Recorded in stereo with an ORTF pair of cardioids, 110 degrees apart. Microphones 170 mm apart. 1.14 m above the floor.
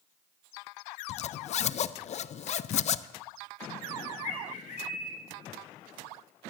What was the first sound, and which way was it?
A zipper, 45° left.